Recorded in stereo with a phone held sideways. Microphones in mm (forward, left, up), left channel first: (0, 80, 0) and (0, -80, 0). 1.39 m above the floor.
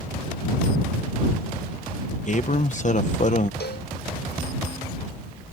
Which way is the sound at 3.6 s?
85° left.